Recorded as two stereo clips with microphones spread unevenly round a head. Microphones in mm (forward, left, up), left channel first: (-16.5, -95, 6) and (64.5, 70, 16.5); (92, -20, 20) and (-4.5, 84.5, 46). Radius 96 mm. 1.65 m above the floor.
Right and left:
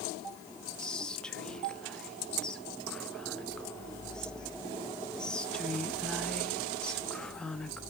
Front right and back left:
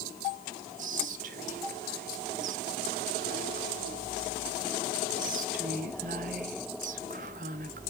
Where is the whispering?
155° left, 0.6 m.